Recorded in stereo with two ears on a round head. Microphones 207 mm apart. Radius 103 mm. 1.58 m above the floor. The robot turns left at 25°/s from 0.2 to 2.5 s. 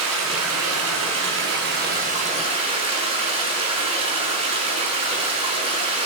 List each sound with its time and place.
0.0 s running water: 95° right, 6.5 m; by 6.0 s 155° right, 6.5 m